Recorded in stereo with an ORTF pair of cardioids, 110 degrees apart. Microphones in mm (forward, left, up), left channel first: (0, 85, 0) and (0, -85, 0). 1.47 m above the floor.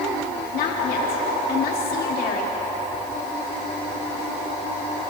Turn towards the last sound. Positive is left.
turn(degrees=65)